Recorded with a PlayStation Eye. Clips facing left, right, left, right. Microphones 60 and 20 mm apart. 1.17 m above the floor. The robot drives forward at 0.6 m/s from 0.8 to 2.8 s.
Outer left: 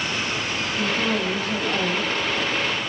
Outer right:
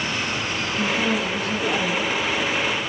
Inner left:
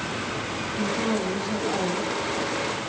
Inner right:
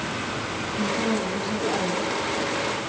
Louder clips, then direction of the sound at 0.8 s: Outer right 1 dB, inner right 1 dB; 30° left (ahead or behind).